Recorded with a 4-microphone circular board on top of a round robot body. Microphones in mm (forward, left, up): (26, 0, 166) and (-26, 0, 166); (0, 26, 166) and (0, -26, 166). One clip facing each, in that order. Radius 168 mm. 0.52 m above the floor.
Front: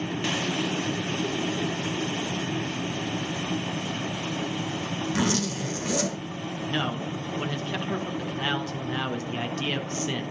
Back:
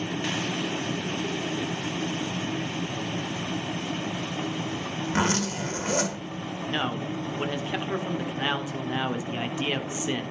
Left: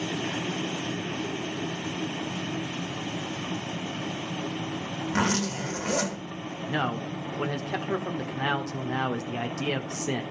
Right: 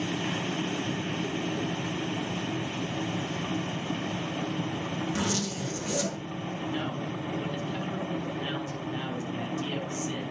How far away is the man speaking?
About 1.6 m.